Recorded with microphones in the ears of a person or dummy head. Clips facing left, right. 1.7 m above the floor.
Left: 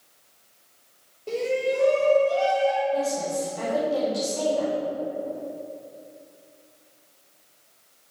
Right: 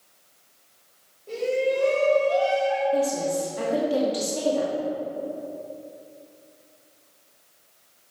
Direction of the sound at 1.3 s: 80° left.